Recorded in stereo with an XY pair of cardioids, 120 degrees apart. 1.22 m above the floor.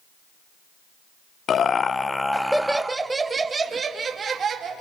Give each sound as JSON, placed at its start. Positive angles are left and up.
{"t": 1.5, "sound": "laughter", "azimuth_deg": 50, "distance_m": 1.0}